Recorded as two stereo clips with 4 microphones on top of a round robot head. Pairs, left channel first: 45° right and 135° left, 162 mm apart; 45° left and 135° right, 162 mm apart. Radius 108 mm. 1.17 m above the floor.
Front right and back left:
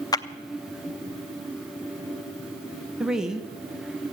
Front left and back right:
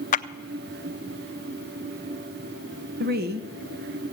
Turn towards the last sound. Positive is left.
turn(degrees=-140)